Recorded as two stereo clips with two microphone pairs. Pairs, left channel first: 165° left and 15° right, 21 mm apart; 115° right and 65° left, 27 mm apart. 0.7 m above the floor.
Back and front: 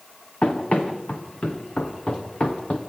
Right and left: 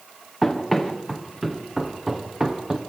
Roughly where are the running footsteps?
Behind.